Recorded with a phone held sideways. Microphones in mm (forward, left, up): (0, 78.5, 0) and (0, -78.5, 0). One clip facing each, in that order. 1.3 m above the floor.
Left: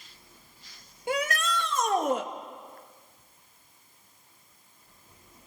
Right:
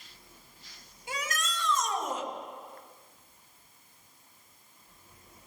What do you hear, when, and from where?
1.1 s a shout: 60° left (ahead or behind), 2 m